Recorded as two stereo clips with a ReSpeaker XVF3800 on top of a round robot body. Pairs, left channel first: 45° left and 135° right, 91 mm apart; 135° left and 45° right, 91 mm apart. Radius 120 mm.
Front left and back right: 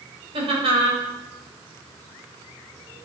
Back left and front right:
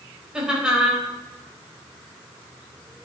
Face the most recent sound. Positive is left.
turn(degrees=-125)